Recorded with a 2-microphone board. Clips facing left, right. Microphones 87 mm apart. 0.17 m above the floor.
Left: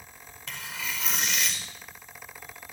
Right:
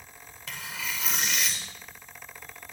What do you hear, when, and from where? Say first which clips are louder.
0.5 s tearing paper: even; centre (ahead or behind), 5.5 m